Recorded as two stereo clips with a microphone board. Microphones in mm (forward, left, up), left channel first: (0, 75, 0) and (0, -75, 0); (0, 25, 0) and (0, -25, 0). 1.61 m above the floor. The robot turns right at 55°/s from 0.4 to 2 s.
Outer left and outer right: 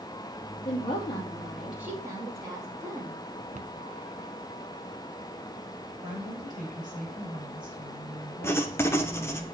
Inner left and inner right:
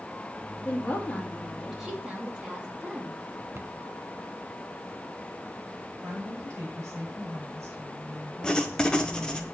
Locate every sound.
0.7 s a woman speaking: 125° left, 3 m; by 3.2 s 160° right, 3 m
3.5 s a cupboard door: 55° right (ahead or behind), 0.7 m
6.0 s a woman speaking: 70° right (ahead or behind), 6.5 m
8.4 s writing: 15° left (ahead or behind), 1.0 m